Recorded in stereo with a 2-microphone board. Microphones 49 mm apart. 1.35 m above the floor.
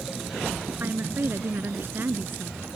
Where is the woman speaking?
45° right (ahead or behind).